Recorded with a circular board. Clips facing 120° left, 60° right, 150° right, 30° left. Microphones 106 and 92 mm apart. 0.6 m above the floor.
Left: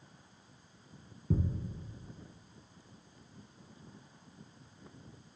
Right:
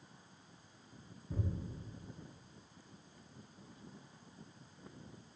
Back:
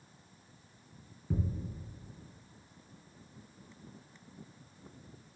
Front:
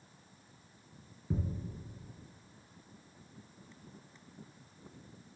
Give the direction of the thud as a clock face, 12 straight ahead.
8 o'clock.